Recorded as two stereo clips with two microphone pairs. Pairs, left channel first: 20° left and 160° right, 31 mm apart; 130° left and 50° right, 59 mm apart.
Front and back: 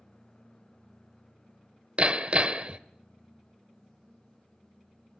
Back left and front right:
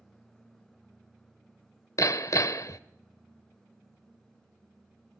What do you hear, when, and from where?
2.0 s hammering: 150° left, 1.0 m